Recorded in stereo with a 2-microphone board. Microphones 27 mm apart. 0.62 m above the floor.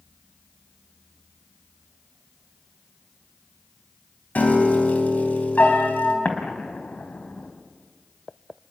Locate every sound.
4.3 s a piano: 60° left (ahead or behind), 3.5 m
6.2 s an explosion: 80° left, 3 m